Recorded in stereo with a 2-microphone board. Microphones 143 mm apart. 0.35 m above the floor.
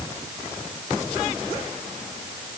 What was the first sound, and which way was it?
Only background noise.